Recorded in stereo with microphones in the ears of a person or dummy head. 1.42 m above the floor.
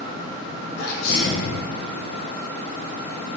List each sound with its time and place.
0.8 s a sneeze: 70° left (ahead or behind), 0.8 m